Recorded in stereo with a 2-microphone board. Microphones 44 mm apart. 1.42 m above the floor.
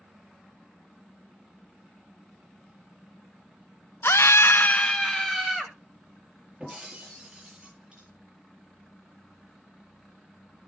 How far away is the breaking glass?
About 6 m.